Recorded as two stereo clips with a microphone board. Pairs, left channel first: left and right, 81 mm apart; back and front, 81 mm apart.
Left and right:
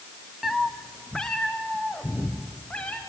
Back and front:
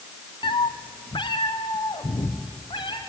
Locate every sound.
0.4 s a cat meowing: 175° right, 0.8 m; by 3.0 s 170° left, 4 m